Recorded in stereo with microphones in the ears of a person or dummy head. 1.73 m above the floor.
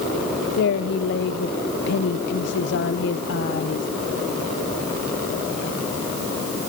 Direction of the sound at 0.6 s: 65° left (ahead or behind).